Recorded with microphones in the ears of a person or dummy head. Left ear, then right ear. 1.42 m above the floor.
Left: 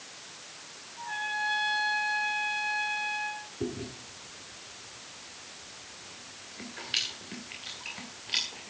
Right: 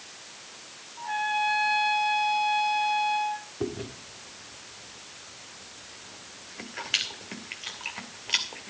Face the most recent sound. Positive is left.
turn(degrees=-25)  # may be behind; listen again after turning